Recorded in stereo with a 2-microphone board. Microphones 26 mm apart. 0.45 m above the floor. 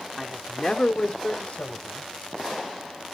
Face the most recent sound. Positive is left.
turn(degrees=65)  # may be behind; listen again after turning